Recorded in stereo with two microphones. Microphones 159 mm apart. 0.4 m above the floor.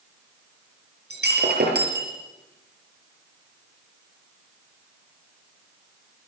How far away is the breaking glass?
About 5.5 m.